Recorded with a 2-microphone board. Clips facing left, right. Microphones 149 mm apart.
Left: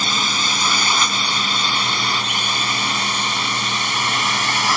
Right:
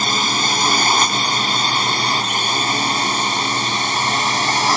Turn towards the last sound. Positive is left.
turn(degrees=-35)  # may be behind; listen again after turning